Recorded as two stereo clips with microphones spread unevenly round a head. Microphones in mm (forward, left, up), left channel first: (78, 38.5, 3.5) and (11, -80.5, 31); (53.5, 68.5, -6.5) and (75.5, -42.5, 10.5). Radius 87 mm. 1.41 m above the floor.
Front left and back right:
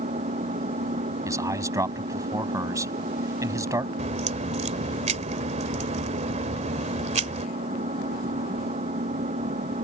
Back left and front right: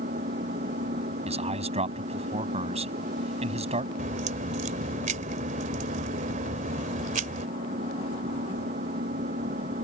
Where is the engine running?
80° right.